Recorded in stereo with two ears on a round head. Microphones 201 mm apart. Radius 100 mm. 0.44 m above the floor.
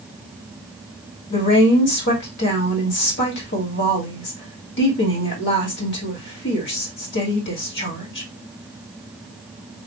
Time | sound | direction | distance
1.3 | a woman speaking | 55° left (ahead or behind) | 1.9 m